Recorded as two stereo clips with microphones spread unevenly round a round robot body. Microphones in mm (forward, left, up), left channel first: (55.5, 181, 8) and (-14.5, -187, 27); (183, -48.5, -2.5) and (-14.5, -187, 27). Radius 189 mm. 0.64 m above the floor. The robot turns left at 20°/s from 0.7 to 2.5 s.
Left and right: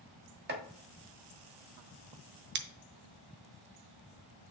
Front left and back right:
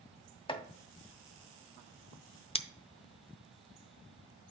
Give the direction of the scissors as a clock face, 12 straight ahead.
1 o'clock.